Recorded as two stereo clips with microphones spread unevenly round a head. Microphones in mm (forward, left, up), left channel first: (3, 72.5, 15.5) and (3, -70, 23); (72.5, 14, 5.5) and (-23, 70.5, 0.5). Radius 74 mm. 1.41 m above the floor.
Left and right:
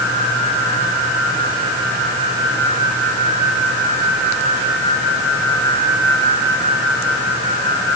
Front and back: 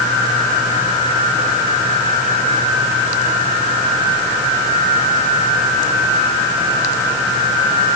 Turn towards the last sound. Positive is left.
No sound to turn to.